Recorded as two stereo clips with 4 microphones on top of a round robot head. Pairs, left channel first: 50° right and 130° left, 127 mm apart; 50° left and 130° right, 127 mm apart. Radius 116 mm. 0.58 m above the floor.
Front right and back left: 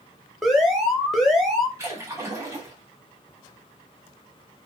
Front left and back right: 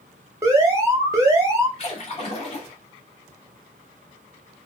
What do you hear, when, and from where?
0.4 s an alarm: 140° right, 1.2 m
1.8 s a splash: 65° left, 1.3 m